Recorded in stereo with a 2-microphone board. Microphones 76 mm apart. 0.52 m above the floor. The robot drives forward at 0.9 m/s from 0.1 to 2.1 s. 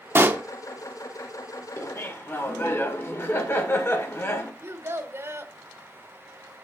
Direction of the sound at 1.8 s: 40° left (ahead or behind).